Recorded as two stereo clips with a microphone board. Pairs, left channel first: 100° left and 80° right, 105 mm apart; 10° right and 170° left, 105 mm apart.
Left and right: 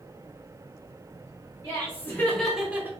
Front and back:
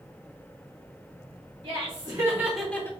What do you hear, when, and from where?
1.6 s laughter: 145° left, 1.5 m; by 2.9 s 45° right, 1.0 m